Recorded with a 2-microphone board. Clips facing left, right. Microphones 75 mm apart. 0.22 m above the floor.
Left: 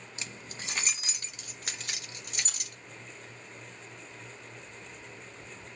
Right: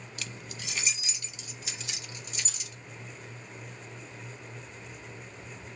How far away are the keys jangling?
About 0.7 m.